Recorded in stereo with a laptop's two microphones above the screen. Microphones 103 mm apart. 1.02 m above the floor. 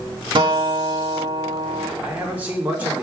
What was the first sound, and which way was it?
A guitar, 50° right (ahead or behind).